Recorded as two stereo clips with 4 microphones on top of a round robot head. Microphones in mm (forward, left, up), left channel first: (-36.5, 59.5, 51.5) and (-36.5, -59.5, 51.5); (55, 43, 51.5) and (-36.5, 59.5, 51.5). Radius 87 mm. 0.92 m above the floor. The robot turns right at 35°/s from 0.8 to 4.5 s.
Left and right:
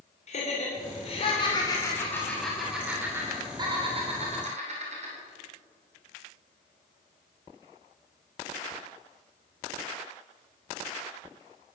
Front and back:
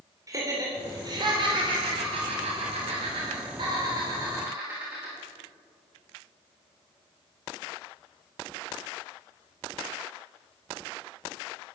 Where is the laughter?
115° left, 3 m; by 5.2 s 115° right, 3 m.